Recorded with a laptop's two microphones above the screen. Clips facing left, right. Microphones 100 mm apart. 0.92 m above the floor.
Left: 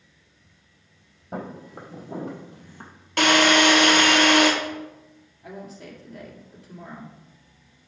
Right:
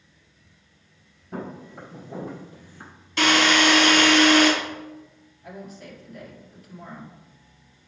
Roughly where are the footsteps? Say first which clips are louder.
Even; left.